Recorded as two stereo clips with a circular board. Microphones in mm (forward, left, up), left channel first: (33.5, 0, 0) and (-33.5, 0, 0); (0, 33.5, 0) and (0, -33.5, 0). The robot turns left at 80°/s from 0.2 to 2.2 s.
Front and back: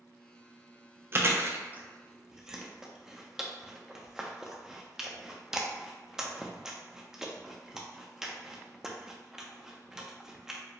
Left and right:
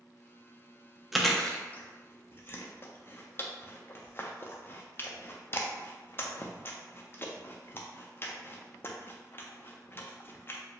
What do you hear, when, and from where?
1.1 s chewing: 170° right, 0.5 m; by 10.6 s 100° left, 0.5 m